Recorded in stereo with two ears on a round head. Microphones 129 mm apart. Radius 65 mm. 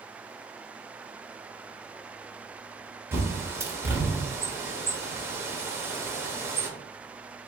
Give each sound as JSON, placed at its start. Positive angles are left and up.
{"t": 3.1, "sound": "a bird", "side_deg": -20, "distance_m": 0.9}